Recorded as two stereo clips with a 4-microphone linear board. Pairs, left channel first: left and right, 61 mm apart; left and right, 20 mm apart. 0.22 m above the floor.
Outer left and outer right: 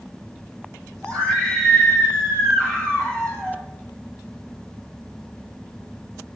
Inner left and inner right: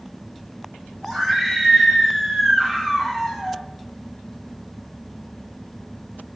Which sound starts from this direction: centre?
A scream, at 1.0 s.